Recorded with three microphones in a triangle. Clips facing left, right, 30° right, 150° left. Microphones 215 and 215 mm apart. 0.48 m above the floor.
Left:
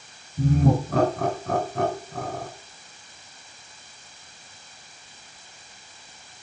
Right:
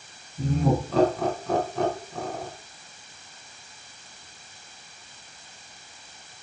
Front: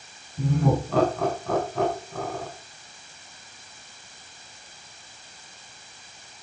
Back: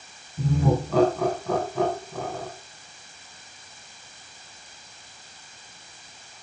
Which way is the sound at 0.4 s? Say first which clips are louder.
Left 3 dB, even; 60° left.